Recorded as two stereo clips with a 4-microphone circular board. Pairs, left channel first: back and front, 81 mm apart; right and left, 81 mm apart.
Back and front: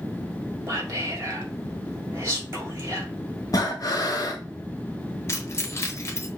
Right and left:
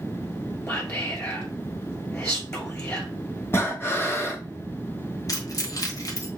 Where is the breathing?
150° right, 1.3 m.